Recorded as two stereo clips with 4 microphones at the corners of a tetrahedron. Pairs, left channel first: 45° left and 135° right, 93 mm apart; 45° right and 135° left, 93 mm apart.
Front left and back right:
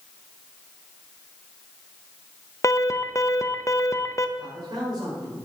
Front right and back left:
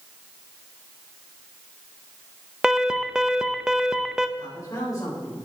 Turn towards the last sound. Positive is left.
turn(degrees=-95)